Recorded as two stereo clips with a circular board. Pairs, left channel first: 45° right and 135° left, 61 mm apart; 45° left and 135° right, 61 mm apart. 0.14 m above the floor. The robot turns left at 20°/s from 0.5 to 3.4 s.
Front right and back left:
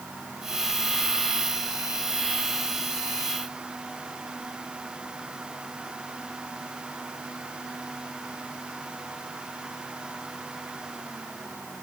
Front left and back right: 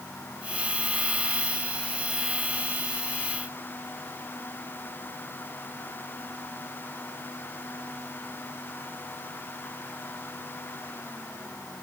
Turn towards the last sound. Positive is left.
No sound to turn to.